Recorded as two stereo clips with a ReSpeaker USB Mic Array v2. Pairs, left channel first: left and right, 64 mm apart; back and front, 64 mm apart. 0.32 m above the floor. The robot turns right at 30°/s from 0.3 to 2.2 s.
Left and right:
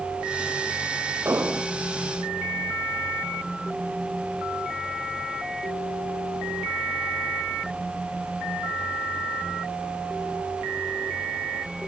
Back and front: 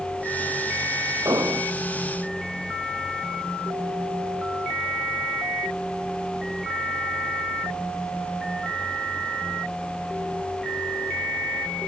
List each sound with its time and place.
1.2 s an explosion: 40° right, 1.6 m; by 1.7 s 25° right, 1.6 m